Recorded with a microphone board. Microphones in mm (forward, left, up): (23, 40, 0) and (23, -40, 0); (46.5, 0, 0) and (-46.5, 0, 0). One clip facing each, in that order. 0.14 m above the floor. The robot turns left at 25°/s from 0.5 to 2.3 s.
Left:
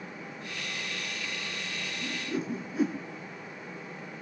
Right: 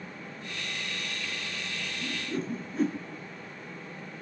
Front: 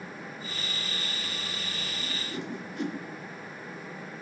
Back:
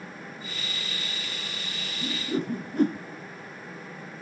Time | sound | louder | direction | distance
2.0 | a whoosh | even, back 10 dB | straight behind | 0.9 m